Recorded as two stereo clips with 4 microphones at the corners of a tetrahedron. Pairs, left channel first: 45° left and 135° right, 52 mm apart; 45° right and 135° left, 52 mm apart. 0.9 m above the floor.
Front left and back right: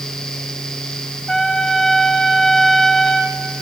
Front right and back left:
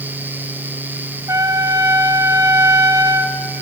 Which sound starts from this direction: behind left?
A trumpet, at 1.3 s.